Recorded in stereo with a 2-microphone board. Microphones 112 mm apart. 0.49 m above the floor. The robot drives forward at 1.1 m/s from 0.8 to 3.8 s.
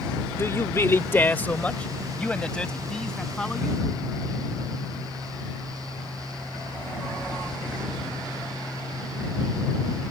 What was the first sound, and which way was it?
A man speaking, 25° left (ahead or behind).